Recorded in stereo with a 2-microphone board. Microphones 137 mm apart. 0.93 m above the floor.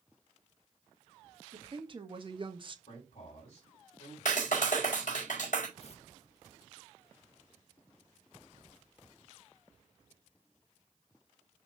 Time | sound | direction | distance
1.5 | a woman speaking | 40° right (ahead or behind) | 1.7 m
2.9 | a man speaking | 50° left (ahead or behind) | 3.5 m
4.2 | a clap | 70° left (ahead or behind) | 4 m
5.8 | tearing paper | 50° left (ahead or behind) | 1.2 m